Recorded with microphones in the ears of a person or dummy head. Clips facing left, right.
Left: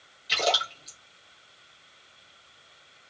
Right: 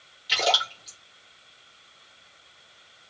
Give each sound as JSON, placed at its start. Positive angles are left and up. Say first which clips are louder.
{"t": 0.3, "sound": "a splash", "louder": "right 1 dB", "side_deg": -15, "distance_m": 1.0}